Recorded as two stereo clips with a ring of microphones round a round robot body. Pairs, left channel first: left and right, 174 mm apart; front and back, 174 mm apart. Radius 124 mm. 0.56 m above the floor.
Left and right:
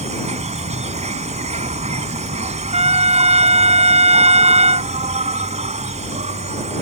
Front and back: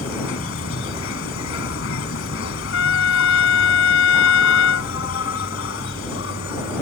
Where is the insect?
40° right.